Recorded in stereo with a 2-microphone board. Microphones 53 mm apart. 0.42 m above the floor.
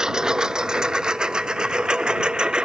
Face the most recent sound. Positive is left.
turn(degrees=-15)  # may be behind; listen again after turning